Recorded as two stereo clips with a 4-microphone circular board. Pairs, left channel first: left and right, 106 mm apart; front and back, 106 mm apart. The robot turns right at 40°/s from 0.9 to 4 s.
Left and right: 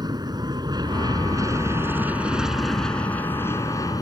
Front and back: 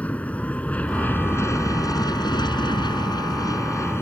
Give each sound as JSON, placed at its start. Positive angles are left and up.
{"t": 0.0, "sound": "an aircraft", "azimuth_deg": -70}